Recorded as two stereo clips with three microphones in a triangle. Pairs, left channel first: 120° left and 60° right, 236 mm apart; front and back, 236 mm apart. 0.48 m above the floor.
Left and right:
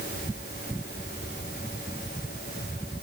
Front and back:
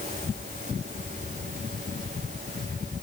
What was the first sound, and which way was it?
Only background noise.